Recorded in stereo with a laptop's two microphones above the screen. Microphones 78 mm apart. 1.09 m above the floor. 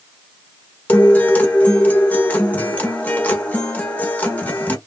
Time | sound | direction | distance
0.9 | a guitar | 20° left (ahead or behind) | 0.6 m